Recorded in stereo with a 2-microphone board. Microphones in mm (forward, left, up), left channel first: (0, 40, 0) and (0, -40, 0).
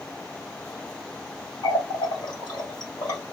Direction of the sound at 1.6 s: 65° left (ahead or behind).